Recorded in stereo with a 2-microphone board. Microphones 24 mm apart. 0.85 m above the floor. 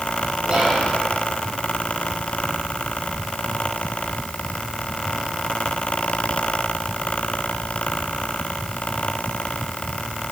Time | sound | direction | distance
0.5 | whispering | 45° right (ahead or behind) | 1.5 m